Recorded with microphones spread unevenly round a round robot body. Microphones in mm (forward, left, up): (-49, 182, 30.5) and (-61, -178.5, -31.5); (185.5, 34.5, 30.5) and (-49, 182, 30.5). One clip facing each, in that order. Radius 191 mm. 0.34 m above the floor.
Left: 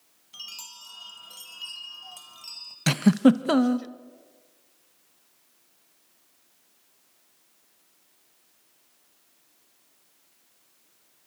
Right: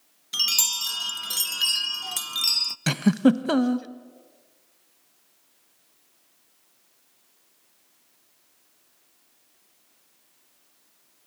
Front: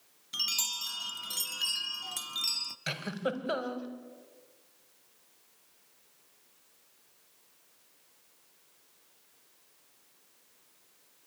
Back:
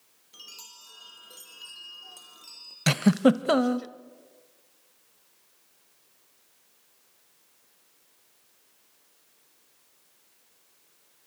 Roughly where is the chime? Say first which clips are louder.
Right 13 dB, front 7 dB; right.